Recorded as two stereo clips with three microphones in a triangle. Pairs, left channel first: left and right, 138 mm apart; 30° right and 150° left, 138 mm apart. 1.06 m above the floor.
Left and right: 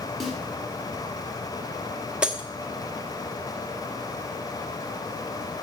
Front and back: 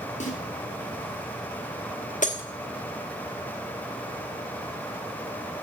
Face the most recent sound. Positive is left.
turn(degrees=-5)